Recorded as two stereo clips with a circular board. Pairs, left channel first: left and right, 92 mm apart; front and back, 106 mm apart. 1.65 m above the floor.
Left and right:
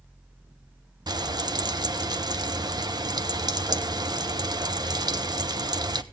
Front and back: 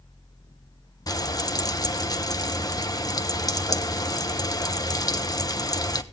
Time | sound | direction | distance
1.1 | frying | 50° right | 0.9 m